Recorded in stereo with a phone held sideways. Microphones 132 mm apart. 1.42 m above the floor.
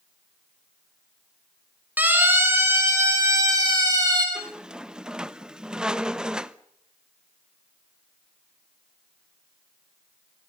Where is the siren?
15° right (ahead or behind), 5 m; by 4.2 s 30° right (ahead or behind), 6.5 m.